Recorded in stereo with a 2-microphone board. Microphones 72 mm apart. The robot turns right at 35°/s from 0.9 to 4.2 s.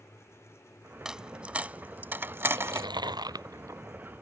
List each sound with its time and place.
1.1 s a dropped coin: 10° right (ahead or behind); by 2.9 s 35° right (ahead or behind)
2.5 s chewing: 95° right; by 3.8 s 50° right